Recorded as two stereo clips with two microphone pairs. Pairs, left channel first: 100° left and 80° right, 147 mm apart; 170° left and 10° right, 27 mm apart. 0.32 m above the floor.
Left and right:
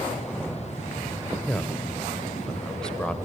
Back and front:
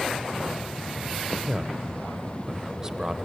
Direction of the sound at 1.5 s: 25° left.